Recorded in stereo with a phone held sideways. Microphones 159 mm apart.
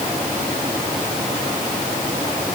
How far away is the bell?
No bell in this recording.